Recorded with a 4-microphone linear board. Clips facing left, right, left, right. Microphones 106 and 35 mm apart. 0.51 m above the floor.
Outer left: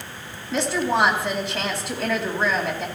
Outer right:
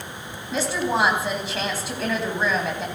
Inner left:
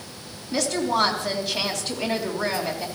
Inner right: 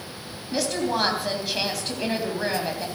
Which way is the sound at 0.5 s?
Centre (ahead or behind).